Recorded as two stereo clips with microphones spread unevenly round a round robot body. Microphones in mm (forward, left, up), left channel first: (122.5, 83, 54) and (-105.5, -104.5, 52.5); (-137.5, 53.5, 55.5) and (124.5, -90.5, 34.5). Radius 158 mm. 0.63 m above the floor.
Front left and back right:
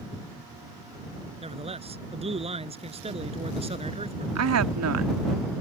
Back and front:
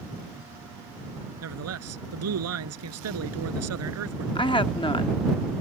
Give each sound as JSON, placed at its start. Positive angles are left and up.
{"t": 1.4, "sound": "a man speaking", "azimuth_deg": -70}
{"t": 4.3, "sound": "a woman speaking", "azimuth_deg": -135}